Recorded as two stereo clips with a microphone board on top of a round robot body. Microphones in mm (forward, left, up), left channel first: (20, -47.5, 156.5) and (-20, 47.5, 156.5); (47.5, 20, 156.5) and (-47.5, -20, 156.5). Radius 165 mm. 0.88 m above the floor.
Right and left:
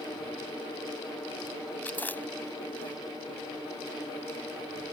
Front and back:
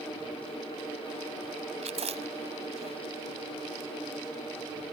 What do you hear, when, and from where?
1.8 s chewing: 140° right